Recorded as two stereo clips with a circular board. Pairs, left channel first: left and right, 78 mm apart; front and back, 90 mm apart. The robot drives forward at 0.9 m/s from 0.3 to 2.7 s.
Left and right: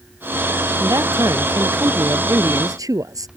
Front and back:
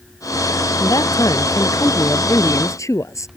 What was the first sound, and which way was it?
A man speaking, 45° right.